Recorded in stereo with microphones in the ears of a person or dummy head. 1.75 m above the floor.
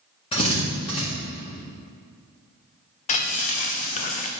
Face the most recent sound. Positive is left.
turn(degrees=40)  # may be behind; listen again after turning